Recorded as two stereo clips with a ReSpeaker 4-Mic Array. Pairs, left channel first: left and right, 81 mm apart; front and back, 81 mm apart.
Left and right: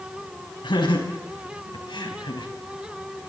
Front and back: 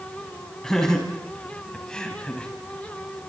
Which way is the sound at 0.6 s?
85° left.